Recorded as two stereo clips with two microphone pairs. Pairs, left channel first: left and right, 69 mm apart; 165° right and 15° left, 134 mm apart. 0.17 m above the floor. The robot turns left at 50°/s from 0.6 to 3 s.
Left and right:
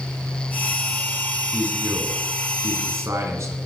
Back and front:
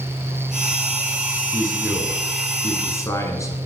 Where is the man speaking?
35° right, 2.5 m; by 3.6 s 110° right, 2.5 m.